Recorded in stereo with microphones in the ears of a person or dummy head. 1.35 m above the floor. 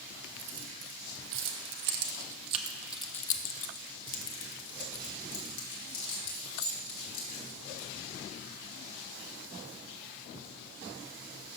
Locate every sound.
0.4 s keys jangling: 75° right (ahead or behind), 1.6 m; by 7.9 s 80° left, 3 m